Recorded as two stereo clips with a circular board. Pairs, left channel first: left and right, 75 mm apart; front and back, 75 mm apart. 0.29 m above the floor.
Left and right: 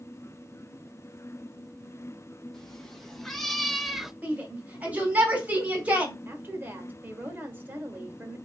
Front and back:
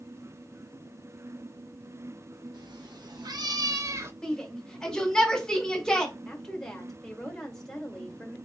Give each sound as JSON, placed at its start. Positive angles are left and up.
{"t": 2.5, "sound": "a cat meowing", "azimuth_deg": 175, "distance_m": 1.2}
{"t": 4.2, "sound": "a shout", "azimuth_deg": -65, "distance_m": 1.4}
{"t": 6.2, "sound": "a woman speaking", "azimuth_deg": -80, "distance_m": 1.2}